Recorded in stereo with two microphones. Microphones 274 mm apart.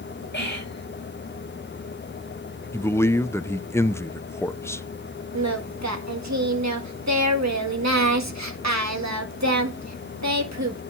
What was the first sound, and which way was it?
Whispering, 40° left (ahead or behind).